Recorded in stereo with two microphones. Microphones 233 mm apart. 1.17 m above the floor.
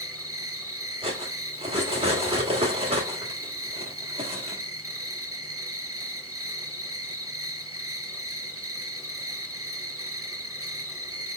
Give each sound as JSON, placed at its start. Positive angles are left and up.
{"t": 0.0, "sound": "an insect", "side_deg": -70, "distance_m": 0.8}
{"t": 1.0, "sound": "cutlery clinking", "side_deg": -25, "distance_m": 1.2}